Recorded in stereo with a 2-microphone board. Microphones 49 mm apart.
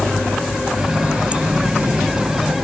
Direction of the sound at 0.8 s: 15° right (ahead or behind).